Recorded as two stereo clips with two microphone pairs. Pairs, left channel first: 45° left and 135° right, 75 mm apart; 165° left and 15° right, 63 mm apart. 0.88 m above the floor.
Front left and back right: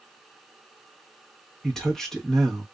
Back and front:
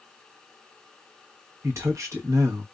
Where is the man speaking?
35° right, 1.0 m.